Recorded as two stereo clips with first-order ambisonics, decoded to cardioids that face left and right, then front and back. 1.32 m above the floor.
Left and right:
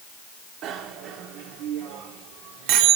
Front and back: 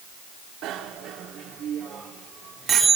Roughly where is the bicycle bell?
Behind right.